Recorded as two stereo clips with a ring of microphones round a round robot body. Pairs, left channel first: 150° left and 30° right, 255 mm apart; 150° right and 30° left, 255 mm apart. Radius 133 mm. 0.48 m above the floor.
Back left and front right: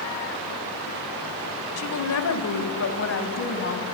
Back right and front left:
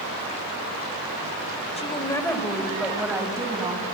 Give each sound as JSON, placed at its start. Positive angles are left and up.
{"t": 1.8, "sound": "a woman speaking", "azimuth_deg": 145, "distance_m": 2.0}